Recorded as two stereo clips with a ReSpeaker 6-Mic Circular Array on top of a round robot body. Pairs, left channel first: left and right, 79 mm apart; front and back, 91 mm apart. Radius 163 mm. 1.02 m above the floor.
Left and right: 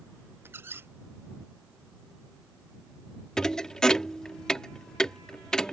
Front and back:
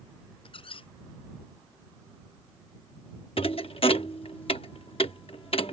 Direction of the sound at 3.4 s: 10° left.